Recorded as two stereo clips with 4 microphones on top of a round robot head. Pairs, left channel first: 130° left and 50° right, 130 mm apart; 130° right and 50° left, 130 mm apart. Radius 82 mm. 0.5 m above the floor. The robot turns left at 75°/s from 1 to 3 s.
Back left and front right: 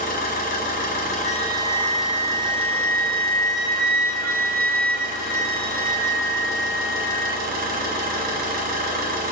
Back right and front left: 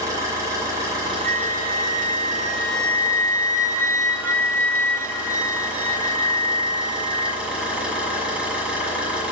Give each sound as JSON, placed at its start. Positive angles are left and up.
{"t": 0.0, "sound": "an engine running", "azimuth_deg": 115, "distance_m": 1.6}
{"t": 1.2, "sound": "a flute", "azimuth_deg": 70, "distance_m": 0.9}